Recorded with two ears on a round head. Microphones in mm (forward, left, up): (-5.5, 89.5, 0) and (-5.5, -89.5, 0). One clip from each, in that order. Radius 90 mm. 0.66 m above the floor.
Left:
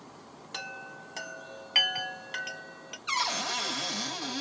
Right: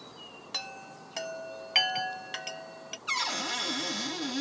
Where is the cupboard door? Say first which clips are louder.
Left 1 dB; 5° left (ahead or behind), 1.3 m.